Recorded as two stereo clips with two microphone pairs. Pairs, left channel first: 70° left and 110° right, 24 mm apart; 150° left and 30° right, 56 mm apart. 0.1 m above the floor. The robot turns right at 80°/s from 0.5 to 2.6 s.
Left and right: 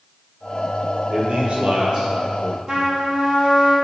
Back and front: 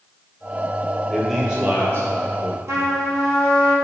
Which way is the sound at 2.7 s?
55° right.